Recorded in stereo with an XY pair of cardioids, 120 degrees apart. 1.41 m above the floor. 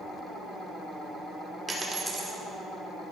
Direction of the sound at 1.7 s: 25° right.